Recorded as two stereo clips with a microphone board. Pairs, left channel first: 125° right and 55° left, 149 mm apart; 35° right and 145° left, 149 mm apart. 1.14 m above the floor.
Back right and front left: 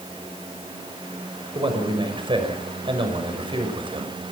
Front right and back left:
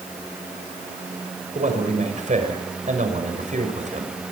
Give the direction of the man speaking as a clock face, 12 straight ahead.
8 o'clock.